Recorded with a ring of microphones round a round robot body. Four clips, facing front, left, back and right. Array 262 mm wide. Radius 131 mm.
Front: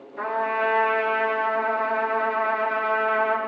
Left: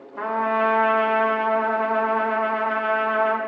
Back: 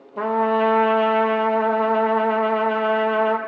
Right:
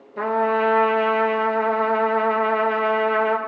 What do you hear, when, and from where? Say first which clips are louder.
0.2 s a trumpet: right 2 dB, back 5 dB; 150° right, 1.0 m